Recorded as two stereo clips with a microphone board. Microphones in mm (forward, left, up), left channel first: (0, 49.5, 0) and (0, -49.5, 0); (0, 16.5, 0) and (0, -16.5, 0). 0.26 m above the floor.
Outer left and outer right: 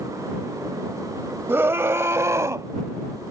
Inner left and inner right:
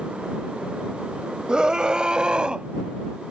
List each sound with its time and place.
1.5 s a scream: 25° right (ahead or behind); by 2.7 s 30° right (ahead or behind)